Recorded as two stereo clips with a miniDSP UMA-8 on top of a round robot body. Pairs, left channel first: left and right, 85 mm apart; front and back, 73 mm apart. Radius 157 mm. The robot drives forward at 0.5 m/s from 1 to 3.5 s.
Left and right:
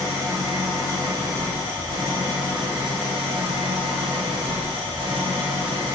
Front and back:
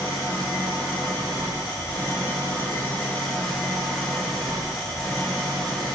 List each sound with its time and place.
0.0 s an engine running: 35° right, 1.6 m; by 6.0 s 85° right, 0.9 m